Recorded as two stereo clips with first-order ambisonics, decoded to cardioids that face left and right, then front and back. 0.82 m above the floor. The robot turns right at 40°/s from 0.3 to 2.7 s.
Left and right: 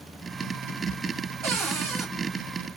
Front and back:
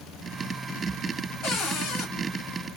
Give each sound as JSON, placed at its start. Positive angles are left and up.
{"t": 1.4, "sound": "a cupboard door", "azimuth_deg": -50, "distance_m": 1.7}